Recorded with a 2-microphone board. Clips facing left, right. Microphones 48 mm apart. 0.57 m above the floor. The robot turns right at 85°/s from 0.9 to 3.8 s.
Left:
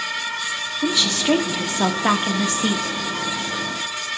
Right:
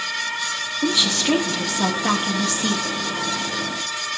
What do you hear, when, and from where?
0.8 s a woman speaking: 20° right, 0.8 m; by 2.9 s 155° left, 0.8 m